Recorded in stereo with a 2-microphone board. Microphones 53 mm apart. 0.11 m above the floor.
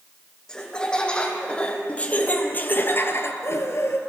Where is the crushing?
No crushing in this recording.